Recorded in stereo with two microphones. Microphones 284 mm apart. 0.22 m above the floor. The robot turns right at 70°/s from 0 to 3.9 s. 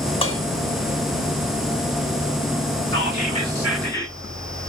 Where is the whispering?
60° right, 2.0 m; by 4.1 s 10° left, 2.0 m.